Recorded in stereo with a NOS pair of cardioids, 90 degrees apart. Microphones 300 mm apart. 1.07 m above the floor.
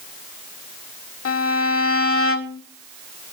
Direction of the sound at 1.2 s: 50° left.